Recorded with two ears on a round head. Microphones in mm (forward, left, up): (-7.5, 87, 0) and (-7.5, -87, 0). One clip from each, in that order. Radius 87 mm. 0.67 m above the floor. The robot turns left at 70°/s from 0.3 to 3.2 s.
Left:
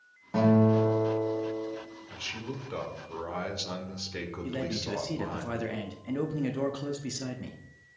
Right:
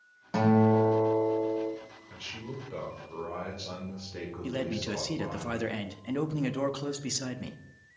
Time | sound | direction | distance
0.3 | a guitar | 95° right | 4.5 m
2.1 | a man speaking | 155° left | 2.0 m
4.4 | a man speaking | 25° right (ahead or behind) | 0.8 m